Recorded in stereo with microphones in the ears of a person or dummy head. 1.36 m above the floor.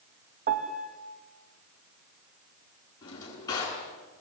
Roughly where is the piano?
Right.